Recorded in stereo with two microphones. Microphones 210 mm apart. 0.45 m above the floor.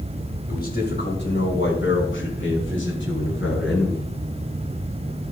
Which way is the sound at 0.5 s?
45° left (ahead or behind).